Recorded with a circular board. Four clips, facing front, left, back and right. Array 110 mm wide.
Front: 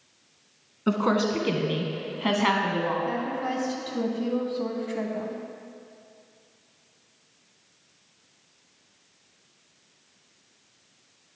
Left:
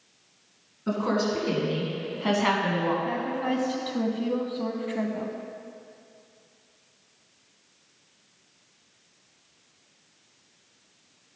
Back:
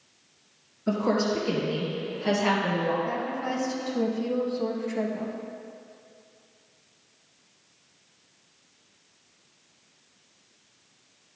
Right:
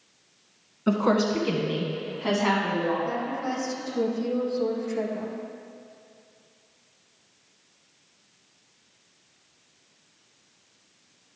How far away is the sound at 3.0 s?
About 1.0 m.